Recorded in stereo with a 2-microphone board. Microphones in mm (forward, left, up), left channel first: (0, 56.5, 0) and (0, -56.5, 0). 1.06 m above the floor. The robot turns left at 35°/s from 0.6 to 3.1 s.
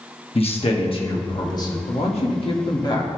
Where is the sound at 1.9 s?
75° left, 1.7 m; by 3.2 s 35° left, 1.7 m.